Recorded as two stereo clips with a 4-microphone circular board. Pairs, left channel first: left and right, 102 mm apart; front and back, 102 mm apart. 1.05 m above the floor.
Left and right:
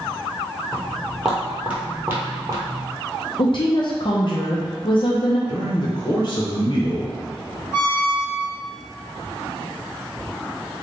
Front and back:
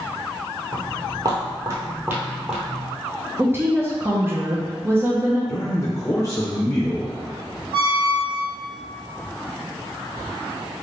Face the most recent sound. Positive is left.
turn(degrees=150)